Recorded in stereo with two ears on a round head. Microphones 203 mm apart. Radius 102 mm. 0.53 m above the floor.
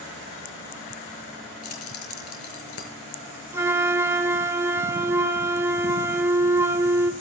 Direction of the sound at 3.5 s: 10° right (ahead or behind).